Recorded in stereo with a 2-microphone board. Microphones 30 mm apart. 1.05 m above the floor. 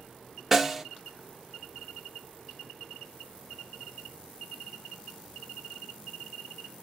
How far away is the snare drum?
About 0.9 m.